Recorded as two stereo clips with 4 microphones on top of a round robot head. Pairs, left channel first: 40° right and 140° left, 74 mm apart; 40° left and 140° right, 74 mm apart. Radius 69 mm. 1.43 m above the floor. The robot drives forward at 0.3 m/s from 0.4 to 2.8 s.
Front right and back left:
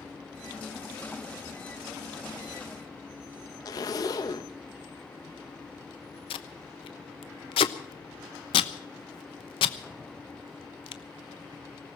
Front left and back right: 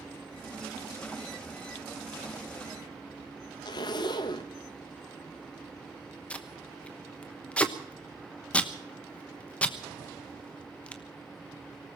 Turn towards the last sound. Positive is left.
turn(degrees=-35)